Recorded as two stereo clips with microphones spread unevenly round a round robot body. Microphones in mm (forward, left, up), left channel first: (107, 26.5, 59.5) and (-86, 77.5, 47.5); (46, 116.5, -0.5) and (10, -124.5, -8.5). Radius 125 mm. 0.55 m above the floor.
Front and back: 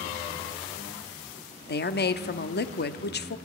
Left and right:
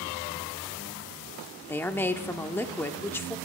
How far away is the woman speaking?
About 0.8 m.